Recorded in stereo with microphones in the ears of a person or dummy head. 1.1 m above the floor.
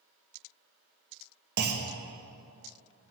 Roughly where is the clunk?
Right.